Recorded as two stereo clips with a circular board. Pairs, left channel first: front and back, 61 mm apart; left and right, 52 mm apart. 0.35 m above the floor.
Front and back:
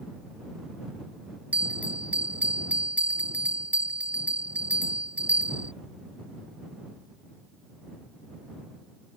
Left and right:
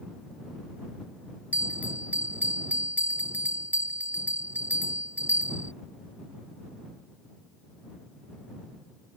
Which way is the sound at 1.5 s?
125° right.